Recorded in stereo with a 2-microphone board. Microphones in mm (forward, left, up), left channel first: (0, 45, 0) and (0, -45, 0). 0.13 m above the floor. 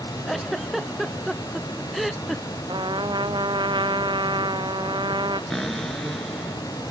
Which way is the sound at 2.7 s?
65° right (ahead or behind).